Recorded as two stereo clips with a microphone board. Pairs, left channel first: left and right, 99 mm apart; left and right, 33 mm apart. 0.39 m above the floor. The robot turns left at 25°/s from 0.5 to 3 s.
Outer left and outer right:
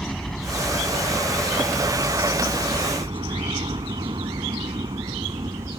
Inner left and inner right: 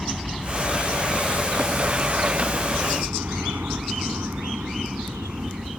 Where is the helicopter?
5° left (ahead or behind); by 5.8 s 50° right (ahead or behind).